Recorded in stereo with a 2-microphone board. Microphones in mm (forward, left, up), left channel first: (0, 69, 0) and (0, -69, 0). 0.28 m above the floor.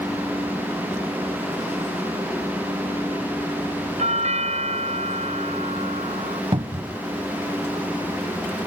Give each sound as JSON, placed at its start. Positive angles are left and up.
{"t": 4.0, "sound": "a doorbell", "side_deg": -55}
{"t": 6.5, "sound": "a cupboard door", "side_deg": -40}